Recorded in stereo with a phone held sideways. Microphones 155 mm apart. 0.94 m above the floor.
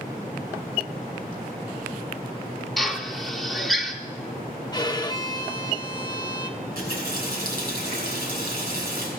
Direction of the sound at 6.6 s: 75° right (ahead or behind).